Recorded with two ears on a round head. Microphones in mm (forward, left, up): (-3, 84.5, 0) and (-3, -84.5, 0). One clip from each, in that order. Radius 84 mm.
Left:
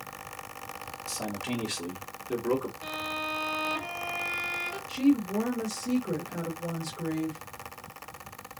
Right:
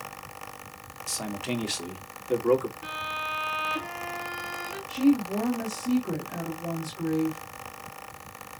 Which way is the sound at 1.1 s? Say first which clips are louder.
Right 3 dB; 35° right (ahead or behind).